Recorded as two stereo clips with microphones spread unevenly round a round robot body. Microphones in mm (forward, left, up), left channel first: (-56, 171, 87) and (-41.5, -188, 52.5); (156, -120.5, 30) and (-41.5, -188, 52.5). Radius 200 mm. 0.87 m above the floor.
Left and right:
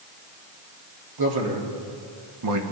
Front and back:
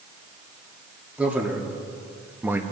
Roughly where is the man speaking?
Right.